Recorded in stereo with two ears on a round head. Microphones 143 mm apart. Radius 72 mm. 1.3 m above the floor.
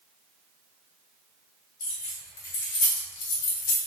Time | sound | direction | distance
1.8 | keys jangling | 45° left (ahead or behind) | 1.4 m